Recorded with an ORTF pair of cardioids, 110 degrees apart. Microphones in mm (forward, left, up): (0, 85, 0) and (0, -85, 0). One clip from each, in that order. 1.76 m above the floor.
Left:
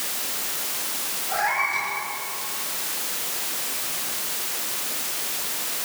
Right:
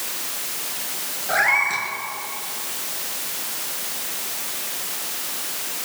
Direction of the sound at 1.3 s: 65° right.